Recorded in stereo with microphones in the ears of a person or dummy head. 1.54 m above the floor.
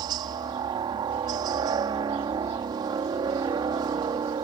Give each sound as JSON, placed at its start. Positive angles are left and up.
{"t": 0.0, "sound": "a helicopter", "side_deg": -25}